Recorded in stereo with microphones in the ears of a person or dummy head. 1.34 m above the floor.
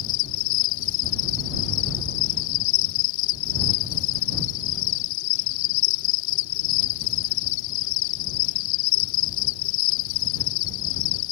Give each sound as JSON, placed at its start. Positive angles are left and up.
{"t": 0.0, "sound": "an insect", "side_deg": 70}